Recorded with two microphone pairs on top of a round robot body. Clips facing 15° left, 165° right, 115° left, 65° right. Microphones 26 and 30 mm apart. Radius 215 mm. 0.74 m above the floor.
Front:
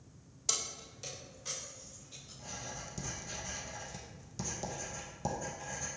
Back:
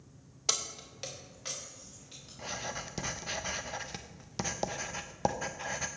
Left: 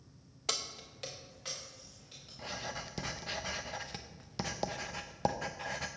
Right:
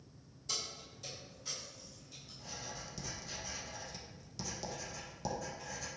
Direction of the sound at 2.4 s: 165° left.